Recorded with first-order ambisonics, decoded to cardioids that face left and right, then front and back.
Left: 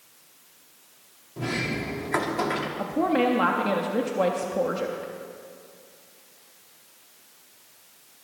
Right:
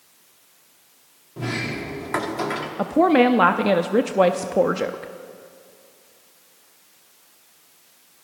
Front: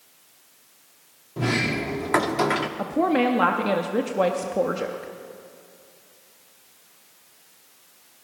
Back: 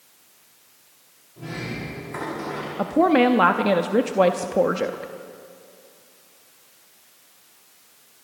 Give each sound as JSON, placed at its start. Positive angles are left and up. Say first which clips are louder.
{"t": 1.4, "sound": "a sliding door", "louder": "right 1 dB, front 8 dB", "azimuth_deg": -10, "distance_m": 1.0}
{"t": 2.8, "sound": "a woman speaking", "louder": "right 8 dB, back 7 dB", "azimuth_deg": -115, "distance_m": 0.5}